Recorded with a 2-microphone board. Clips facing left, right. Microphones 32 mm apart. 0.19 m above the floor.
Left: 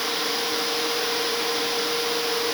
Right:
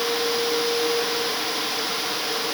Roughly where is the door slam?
I don't hear a door slam.